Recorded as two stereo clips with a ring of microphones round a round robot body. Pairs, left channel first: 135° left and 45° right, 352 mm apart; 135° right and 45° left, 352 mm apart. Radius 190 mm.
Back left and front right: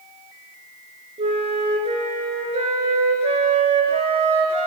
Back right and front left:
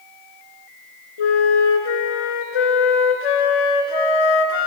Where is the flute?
120° right, 1.0 m.